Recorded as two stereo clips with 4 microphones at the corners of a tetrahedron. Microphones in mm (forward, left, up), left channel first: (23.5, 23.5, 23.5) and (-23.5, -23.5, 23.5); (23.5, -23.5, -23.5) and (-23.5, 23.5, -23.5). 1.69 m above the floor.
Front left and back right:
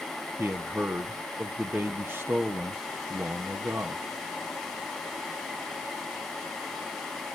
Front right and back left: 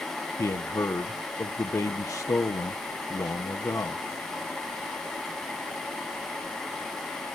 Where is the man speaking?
80° right, 1.2 m.